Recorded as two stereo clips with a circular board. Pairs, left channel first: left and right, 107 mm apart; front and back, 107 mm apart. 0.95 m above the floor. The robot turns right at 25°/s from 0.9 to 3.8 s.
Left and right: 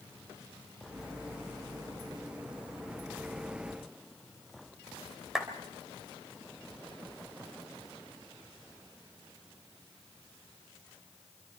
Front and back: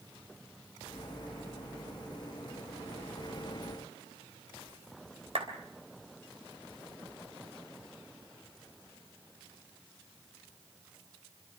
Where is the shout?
I don't hear a shout.